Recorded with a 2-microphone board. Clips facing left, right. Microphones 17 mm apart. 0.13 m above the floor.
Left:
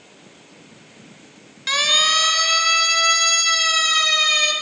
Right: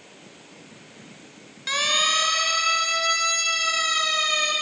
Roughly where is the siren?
Centre.